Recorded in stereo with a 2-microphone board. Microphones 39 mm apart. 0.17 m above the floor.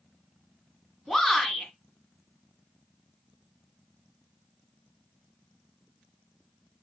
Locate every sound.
1.1 s a shout: 5° left (ahead or behind), 1.6 m